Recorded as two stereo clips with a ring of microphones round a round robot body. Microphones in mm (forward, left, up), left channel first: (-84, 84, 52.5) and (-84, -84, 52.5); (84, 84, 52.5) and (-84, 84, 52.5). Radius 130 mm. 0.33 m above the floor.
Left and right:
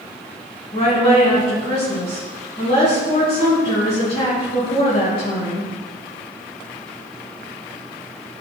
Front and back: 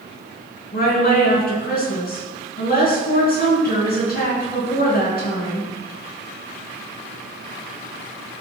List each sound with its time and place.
0.7 s a woman speaking: 25° left, 4.5 m